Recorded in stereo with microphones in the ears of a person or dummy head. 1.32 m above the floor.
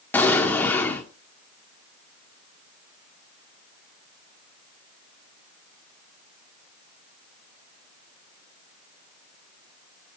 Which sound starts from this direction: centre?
An explosion, at 0.1 s.